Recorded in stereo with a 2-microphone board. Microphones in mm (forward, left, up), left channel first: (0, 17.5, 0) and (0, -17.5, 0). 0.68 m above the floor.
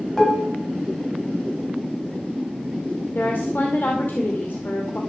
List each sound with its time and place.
0.2 s dishes clattering: 10° left (ahead or behind), 3 m
3.1 s a woman speaking: 65° left (ahead or behind), 2.5 m